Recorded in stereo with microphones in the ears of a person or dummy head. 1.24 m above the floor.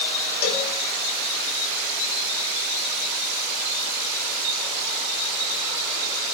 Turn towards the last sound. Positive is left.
turn(degrees=50)  # may be behind; listen again after turning